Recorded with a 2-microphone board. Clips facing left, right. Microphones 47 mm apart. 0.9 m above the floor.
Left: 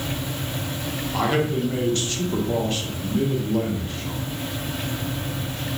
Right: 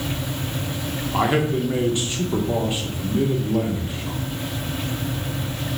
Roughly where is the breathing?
I don't hear breathing.